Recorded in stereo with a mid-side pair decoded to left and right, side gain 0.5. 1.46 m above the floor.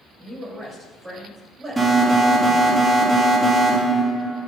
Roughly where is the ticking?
No ticking in this recording.